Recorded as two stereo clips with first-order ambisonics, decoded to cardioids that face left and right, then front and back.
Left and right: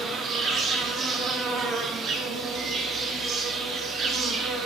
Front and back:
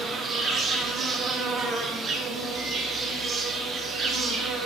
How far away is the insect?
About 0.7 m.